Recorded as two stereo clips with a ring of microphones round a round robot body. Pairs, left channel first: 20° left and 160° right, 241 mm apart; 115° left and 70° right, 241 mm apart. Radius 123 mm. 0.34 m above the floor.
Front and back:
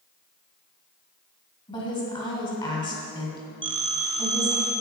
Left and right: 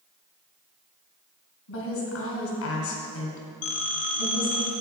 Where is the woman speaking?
90° left, 2.5 m.